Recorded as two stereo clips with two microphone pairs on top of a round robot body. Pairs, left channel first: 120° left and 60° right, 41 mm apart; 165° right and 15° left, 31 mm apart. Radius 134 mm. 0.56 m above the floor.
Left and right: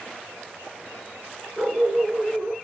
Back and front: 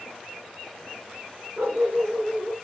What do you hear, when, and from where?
1.6 s a dog barking: 5° right, 4 m